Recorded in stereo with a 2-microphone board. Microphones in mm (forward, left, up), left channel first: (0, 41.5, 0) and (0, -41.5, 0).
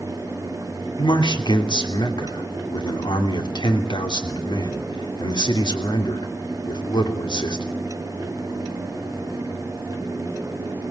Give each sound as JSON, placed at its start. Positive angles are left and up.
{"t": 1.0, "sound": "a man speaking", "side_deg": 65, "distance_m": 3.0}